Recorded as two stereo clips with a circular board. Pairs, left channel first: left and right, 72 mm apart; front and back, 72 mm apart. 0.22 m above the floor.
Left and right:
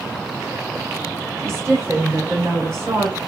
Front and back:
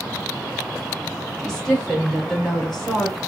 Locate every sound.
1.4 s a woman speaking: 80° right, 1.2 m